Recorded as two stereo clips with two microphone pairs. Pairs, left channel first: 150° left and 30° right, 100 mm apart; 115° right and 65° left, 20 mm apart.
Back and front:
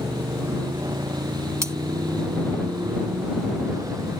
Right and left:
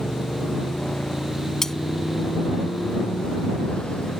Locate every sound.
0.0 s a motorcycle: 85° right
1.6 s cutlery clinking: 65° right